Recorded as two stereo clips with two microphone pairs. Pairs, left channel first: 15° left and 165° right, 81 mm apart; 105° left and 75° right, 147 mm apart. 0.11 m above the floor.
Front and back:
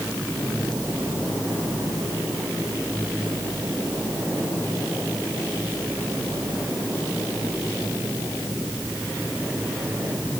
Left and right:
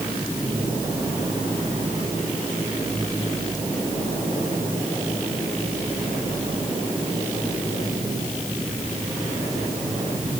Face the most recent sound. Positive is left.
No sound to turn to.